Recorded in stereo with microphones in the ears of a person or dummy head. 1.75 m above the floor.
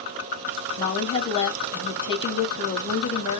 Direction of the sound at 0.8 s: 25° left (ahead or behind).